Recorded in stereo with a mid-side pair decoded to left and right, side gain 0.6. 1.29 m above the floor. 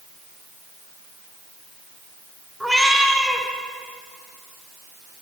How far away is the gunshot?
I don't hear a gunshot.